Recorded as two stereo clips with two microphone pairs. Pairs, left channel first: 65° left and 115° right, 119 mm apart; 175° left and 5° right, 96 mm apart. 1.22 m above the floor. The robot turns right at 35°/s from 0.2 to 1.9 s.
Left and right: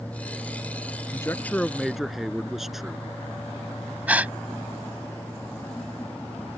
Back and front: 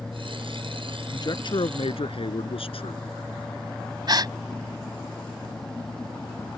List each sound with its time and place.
1.1 s a man speaking: 130° left; by 3.0 s 160° left
4.1 s a gasp: 40° right